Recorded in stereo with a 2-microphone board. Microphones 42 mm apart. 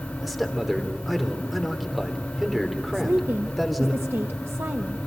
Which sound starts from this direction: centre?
A man speaking, at 0.2 s.